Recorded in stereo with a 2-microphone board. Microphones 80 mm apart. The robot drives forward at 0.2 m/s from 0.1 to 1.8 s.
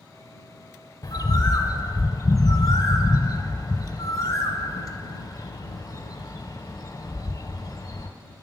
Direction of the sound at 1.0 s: 55° left (ahead or behind).